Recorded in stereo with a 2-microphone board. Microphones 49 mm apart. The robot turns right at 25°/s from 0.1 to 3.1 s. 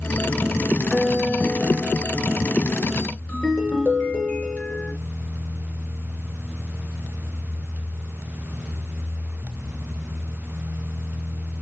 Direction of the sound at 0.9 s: 5° left (ahead or behind).